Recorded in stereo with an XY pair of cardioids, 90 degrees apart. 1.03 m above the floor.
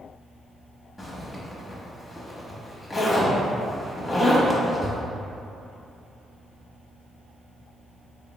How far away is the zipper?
About 0.9 m.